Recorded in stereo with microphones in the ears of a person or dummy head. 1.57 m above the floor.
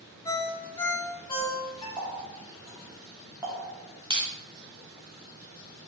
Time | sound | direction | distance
0.2 | a ringtone | 20° left (ahead or behind) | 0.7 m
2.0 | a running tap | 10° right (ahead or behind) | 0.9 m
4.1 | crushing | 20° right (ahead or behind) | 0.5 m